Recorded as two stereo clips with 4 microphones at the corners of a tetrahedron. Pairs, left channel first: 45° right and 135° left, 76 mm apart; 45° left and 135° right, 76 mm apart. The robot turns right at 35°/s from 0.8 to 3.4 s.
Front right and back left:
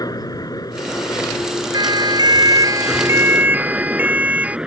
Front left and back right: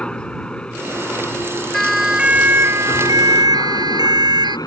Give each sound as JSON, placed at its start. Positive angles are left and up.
{"t": 0.0, "sound": "a helicopter", "azimuth_deg": -30}
{"t": 1.7, "sound": "a siren", "azimuth_deg": 130}